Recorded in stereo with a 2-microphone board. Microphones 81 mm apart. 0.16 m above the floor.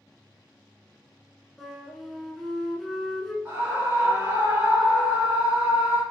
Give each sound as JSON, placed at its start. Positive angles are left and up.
{"t": 1.6, "sound": "a flute", "side_deg": 0, "distance_m": 0.7}
{"t": 3.5, "sound": "a scream", "side_deg": -20, "distance_m": 1.4}